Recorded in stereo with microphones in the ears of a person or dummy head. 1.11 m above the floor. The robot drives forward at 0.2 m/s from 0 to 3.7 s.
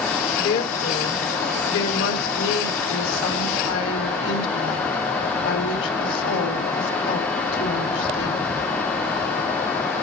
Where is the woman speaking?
65° left (ahead or behind), 3 m; by 8.6 s 80° left, 3 m.